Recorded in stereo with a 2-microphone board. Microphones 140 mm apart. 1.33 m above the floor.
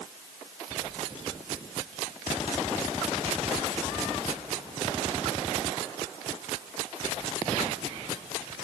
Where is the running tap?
No running tap in this recording.